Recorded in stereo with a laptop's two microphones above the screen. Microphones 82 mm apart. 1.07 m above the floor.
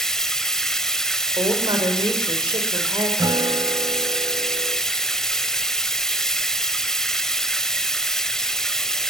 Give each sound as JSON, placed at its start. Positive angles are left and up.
{"t": 0.0, "sound": "running water", "side_deg": 5, "distance_m": 1.3}
{"t": 1.4, "sound": "a woman speaking", "side_deg": -70, "distance_m": 5.0}
{"t": 3.2, "sound": "a guitar", "side_deg": -55, "distance_m": 2.0}